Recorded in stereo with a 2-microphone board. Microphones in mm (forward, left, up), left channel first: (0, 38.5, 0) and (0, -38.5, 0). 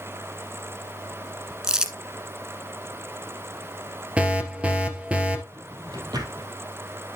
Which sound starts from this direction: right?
A drawer, at 5.5 s.